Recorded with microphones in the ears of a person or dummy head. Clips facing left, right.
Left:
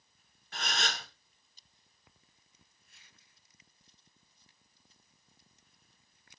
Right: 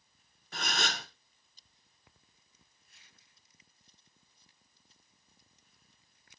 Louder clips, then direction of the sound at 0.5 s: Right 1 dB; 75° right (ahead or behind).